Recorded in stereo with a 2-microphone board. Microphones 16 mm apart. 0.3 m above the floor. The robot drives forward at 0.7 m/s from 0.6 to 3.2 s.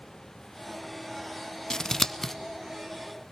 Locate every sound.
1.7 s scissors: 45° left (ahead or behind), 0.5 m; by 2.3 s 25° left (ahead or behind), 0.9 m